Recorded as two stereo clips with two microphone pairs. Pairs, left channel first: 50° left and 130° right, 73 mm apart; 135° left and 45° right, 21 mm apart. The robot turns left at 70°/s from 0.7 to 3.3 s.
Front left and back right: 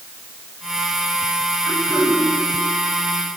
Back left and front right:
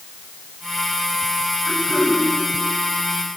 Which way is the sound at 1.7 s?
25° left.